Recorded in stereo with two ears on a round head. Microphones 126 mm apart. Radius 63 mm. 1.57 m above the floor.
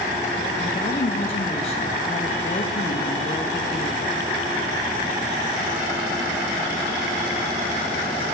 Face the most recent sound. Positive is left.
turn(degrees=45)  # may be behind; listen again after turning